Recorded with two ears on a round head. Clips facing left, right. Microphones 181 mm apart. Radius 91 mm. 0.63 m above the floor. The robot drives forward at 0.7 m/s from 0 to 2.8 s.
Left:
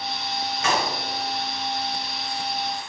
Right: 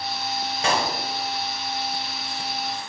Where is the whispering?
No whispering in this recording.